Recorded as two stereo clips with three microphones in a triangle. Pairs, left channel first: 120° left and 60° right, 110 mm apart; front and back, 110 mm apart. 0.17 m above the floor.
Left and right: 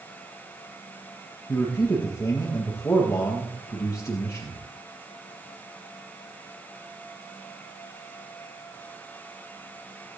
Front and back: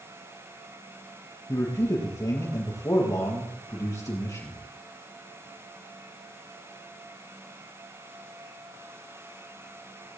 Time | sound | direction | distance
1.5 | a man speaking | 55° left | 4 m